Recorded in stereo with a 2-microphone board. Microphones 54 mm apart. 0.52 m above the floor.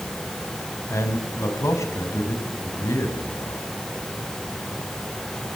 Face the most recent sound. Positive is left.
turn(degrees=65)  # may be behind; listen again after turning